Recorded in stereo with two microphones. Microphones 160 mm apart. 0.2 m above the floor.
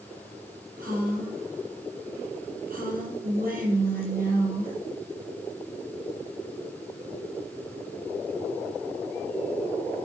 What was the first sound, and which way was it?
A woman speaking, 60° right (ahead or behind).